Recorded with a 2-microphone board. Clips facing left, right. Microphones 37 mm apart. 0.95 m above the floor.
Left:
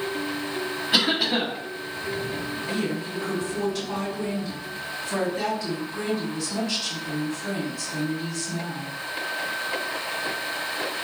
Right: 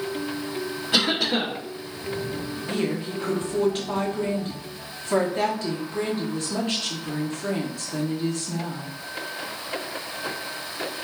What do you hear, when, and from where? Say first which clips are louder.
0.9 s a cough: even; 15° left (ahead or behind), 1.3 m
2.7 s a woman speaking: right 3 dB; 40° right (ahead or behind), 0.9 m